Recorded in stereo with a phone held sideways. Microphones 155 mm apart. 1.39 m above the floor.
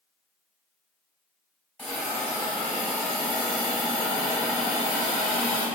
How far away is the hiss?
About 1.0 m.